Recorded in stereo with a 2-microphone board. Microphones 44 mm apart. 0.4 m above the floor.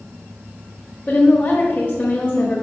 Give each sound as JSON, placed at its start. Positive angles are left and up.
{"t": 1.1, "sound": "a woman speaking", "side_deg": 35, "distance_m": 1.1}